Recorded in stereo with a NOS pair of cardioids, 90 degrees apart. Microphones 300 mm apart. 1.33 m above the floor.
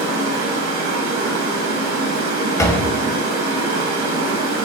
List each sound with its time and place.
0.0 s running water: 70° right, 1.2 m
2.6 s a door slam: 10° left, 0.5 m